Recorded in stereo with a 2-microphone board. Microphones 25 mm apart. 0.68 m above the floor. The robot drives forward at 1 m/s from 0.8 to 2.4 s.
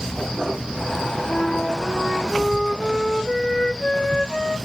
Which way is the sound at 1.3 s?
20° left (ahead or behind).